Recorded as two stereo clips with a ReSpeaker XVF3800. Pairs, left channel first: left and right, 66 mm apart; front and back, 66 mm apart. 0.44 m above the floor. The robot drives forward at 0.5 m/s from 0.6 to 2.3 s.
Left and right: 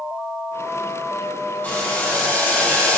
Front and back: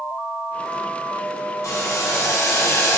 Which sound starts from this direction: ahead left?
Boiling, at 1.6 s.